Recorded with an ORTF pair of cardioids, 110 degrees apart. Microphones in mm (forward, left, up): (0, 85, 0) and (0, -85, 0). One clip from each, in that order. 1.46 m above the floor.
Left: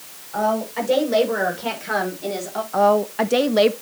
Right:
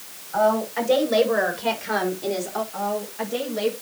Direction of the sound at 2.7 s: 60° left.